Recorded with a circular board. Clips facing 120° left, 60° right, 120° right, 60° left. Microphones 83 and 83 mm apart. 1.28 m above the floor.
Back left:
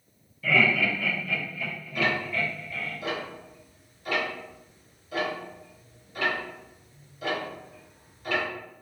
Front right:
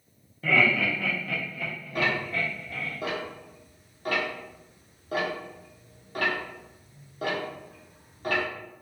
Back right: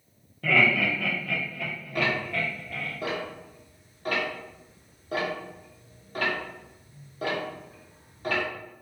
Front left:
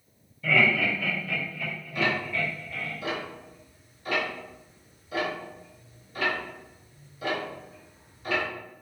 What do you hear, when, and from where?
0.4 s laughter: 105° right, 1.0 m
1.9 s ticking: 90° right, 0.8 m